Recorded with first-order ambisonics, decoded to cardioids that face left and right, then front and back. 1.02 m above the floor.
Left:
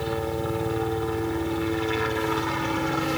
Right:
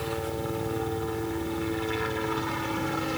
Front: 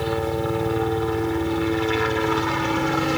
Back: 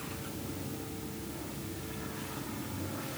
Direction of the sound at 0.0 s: 15° left.